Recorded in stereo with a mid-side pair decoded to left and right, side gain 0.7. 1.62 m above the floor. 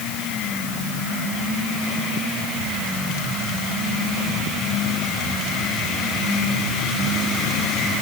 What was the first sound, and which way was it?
Only background noise.